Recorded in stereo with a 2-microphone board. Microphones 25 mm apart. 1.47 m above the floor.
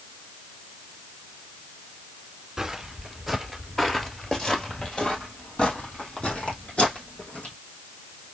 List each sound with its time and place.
2.6 s footsteps: 25° right (ahead or behind), 1.5 m; by 7.5 s 55° left (ahead or behind), 3.5 m